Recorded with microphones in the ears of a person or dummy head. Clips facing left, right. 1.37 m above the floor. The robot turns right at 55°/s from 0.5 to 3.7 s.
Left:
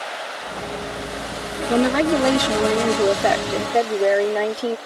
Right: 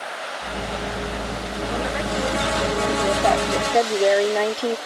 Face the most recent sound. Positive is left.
turn(degrees=175)